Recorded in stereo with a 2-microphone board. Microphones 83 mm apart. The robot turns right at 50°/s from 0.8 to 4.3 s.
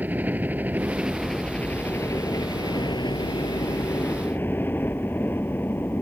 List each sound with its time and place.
0.0 s a helicopter: 20° right (ahead or behind); by 6.0 s 25° left (ahead or behind)